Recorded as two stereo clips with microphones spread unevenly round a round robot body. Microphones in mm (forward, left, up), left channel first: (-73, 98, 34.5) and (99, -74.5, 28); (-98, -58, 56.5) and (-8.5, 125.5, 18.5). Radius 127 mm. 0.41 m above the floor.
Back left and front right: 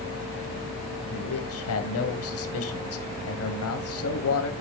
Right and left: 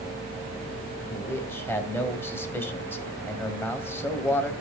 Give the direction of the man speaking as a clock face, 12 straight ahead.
7 o'clock.